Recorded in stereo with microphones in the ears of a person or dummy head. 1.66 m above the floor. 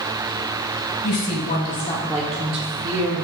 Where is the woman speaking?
55° left (ahead or behind), 1.1 m; by 3.2 s 55° right (ahead or behind), 1.2 m.